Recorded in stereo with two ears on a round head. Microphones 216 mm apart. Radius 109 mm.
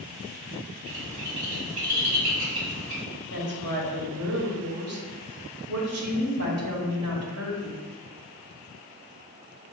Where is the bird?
25° right (ahead or behind), 1.7 m.